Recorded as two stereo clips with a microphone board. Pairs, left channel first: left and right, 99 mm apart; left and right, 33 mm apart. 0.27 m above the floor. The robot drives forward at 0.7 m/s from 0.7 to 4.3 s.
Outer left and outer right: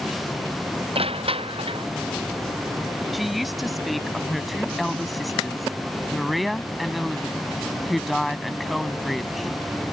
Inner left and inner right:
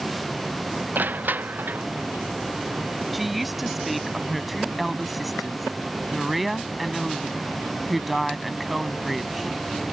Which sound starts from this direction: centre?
A woman speaking, at 3.1 s.